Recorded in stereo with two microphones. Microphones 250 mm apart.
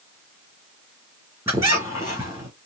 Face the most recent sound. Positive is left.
turn(degrees=-10)  # may be behind; listen again after turning